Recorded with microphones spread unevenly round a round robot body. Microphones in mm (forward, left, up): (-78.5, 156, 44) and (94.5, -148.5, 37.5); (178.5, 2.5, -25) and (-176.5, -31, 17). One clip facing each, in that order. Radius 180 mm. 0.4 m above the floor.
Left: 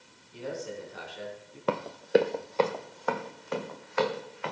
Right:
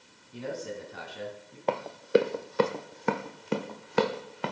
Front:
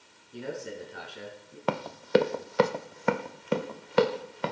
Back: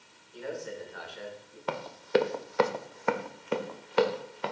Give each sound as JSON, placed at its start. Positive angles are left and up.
{"t": 0.3, "sound": "a man speaking", "azimuth_deg": -45, "distance_m": 4.5}
{"t": 1.7, "sound": "running footsteps", "azimuth_deg": 45, "distance_m": 0.8}